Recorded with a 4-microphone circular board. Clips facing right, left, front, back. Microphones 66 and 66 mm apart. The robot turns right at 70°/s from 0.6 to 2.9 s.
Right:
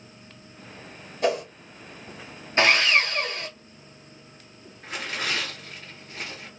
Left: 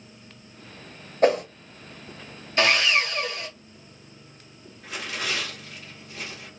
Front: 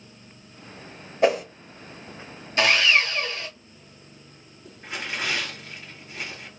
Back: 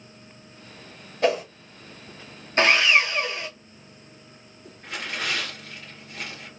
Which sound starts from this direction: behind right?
Sawing, at 2.6 s.